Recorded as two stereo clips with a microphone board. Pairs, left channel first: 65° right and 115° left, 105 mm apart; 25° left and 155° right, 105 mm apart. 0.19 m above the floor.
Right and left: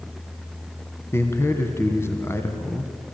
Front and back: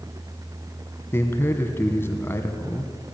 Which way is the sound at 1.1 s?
25° right.